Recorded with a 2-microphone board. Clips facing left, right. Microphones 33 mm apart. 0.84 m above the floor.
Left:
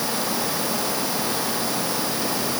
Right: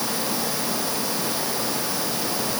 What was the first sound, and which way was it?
Only background noise.